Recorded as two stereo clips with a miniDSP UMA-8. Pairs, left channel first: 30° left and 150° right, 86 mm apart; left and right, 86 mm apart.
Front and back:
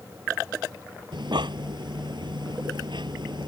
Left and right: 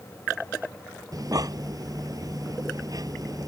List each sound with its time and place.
1.1 s breathing: 130° right